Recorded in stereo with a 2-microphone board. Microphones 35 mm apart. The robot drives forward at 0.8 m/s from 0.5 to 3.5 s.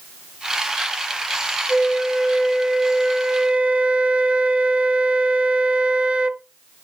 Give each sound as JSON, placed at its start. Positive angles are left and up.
{"t": 1.7, "sound": "a flute", "side_deg": -10, "distance_m": 1.9}